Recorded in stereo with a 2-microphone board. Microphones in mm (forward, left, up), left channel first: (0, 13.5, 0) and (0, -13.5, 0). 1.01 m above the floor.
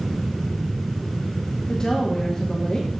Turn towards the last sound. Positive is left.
turn(degrees=30)  # may be behind; listen again after turning